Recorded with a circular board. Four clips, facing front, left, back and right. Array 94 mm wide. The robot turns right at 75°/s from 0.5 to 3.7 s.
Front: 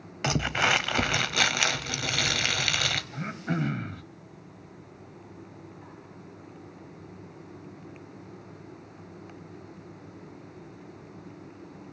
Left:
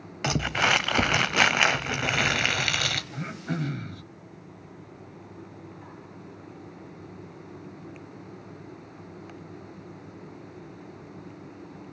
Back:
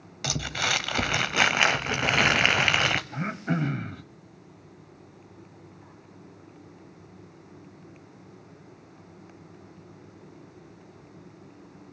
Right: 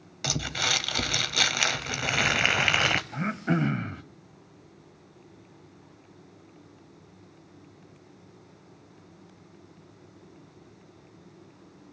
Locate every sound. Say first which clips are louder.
0.2 s crumpling: left 7 dB, front 4 dB; 50° left, 0.6 m; by 3.0 s 120° right, 0.6 m
3.1 s throat clearing: right 5 dB, back 2 dB; 130° right, 0.8 m; by 4.0 s 90° right, 0.8 m